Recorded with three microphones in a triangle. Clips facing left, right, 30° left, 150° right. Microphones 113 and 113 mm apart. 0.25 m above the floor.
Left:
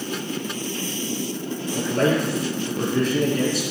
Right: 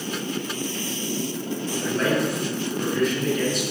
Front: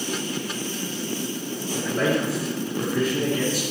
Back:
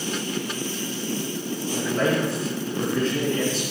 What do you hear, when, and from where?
1.7 s a man speaking: 115° left, 6 m